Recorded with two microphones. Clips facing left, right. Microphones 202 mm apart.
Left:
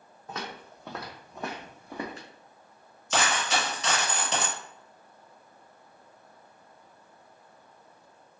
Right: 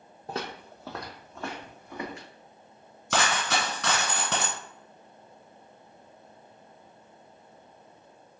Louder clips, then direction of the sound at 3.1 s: Even; 60° right (ahead or behind).